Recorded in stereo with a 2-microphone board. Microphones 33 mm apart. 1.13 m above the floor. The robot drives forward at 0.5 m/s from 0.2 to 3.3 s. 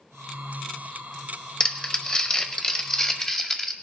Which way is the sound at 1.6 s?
25° left (ahead or behind).